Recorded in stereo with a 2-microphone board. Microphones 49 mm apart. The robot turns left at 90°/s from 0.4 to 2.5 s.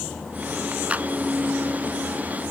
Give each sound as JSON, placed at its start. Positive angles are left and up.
{"t": 0.9, "sound": "a clap", "side_deg": -25}